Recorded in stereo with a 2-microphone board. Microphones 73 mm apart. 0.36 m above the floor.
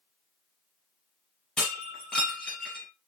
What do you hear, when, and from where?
1.6 s breaking glass: 15° left (ahead or behind), 4 m